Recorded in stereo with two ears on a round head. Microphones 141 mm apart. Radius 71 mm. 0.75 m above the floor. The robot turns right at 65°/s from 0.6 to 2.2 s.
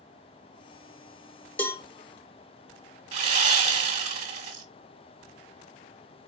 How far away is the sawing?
About 1.5 m.